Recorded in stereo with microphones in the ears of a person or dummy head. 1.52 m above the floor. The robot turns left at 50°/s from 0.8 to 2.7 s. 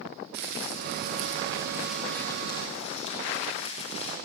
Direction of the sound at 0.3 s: 120° right.